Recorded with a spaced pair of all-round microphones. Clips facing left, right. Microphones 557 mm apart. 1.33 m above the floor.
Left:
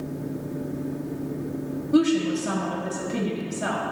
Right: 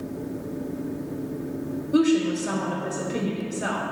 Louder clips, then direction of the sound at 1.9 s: Even; 25° left (ahead or behind).